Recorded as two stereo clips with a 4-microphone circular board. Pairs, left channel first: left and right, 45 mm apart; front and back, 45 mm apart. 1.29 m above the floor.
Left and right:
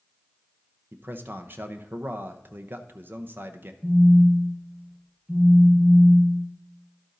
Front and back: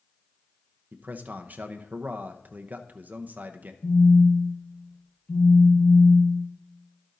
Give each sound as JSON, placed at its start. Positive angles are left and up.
{"t": 0.9, "sound": "a man speaking", "azimuth_deg": -130, "distance_m": 0.8}
{"t": 3.8, "sound": "a phone buzzing", "azimuth_deg": -20, "distance_m": 1.7}